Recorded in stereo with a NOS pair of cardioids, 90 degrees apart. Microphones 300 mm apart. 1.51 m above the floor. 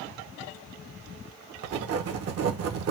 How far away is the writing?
About 1.2 m.